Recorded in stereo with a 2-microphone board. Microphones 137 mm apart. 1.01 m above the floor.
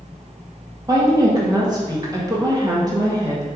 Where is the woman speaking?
30° right (ahead or behind), 1.4 m.